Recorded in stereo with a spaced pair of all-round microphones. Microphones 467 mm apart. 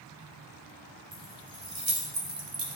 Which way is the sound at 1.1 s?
85° right.